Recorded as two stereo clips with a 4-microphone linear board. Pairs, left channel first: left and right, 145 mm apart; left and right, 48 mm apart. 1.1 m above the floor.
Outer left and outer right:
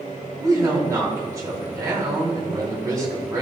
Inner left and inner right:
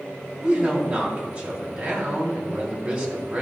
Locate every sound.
0.4 s a woman speaking: 20° right (ahead or behind), 2.5 m